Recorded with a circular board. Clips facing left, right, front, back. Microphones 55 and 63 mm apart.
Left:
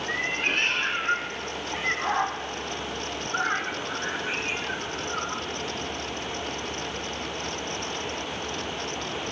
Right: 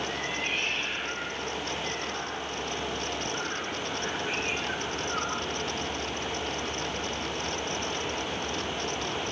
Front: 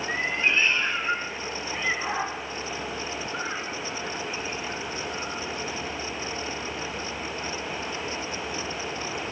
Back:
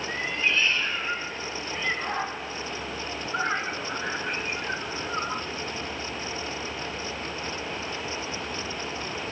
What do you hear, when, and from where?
0.1 s a cat meowing: 60° left, 2.5 m; by 5.5 s 175° right, 1.5 m